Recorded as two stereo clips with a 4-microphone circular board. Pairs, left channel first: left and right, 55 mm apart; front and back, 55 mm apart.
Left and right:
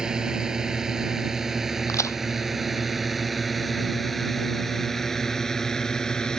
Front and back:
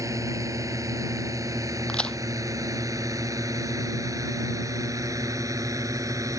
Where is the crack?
75° left.